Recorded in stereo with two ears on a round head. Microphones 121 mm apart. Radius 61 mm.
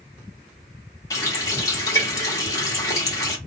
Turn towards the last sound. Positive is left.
turn(degrees=25)  # may be behind; listen again after turning